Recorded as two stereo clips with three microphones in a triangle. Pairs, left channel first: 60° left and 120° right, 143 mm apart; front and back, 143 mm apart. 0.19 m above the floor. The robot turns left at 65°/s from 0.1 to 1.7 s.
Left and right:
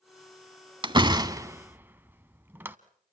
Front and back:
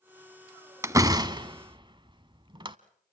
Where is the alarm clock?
I don't hear an alarm clock.